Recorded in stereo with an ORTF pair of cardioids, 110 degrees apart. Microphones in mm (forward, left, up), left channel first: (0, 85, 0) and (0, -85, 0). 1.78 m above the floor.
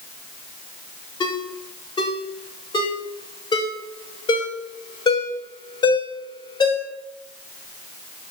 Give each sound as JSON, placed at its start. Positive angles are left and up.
{"t": 1.2, "sound": "a ringtone", "azimuth_deg": 25, "distance_m": 4.0}